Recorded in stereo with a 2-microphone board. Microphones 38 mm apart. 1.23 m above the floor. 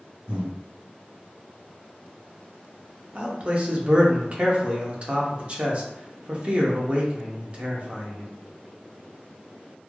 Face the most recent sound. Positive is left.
turn(degrees=-30)  # may be behind; listen again after turning